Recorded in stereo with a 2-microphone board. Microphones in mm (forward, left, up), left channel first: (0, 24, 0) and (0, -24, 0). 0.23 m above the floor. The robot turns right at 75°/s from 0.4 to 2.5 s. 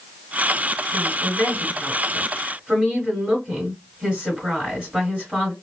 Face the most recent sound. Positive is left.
turn(degrees=-165)